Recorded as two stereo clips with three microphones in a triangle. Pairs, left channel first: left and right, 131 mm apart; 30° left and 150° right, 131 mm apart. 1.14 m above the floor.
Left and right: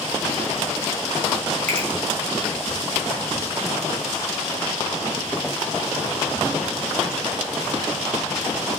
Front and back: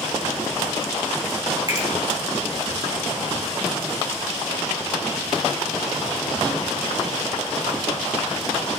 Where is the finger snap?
90° right, 3.5 m.